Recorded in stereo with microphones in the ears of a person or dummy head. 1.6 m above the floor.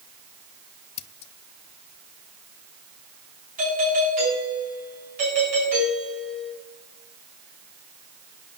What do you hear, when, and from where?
1.0 s scissors: 35° left (ahead or behind), 0.7 m
3.6 s a doorbell: 45° right (ahead or behind), 9.5 m